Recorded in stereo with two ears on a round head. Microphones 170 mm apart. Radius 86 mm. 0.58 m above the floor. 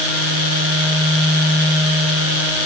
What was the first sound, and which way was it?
Only background noise.